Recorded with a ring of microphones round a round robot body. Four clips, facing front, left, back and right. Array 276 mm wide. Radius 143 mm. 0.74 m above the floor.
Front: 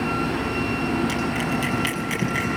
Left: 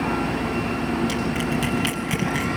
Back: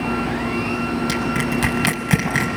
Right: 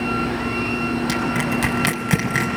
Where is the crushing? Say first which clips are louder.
Right 2 dB, back 3 dB; 135° right, 5 m.